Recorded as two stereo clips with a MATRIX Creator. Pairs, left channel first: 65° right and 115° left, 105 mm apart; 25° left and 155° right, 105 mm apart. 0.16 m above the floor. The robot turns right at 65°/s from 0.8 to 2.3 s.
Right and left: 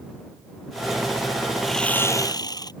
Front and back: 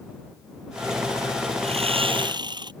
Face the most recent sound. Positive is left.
turn(degrees=-115)